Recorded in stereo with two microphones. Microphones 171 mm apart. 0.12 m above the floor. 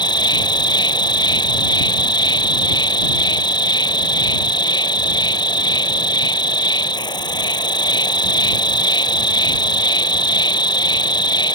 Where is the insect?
25° left (ahead or behind).